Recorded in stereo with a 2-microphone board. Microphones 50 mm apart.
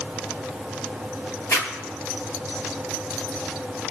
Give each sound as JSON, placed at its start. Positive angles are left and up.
{"t": 1.5, "sound": "a zipper", "side_deg": 70, "distance_m": 3.5}